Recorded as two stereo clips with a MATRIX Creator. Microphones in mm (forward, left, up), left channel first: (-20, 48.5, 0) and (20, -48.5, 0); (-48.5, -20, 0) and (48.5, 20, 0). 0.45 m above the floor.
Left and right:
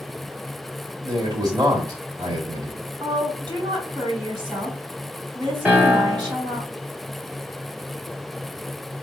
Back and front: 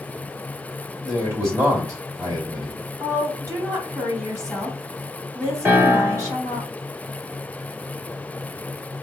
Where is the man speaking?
30° right, 1.9 m.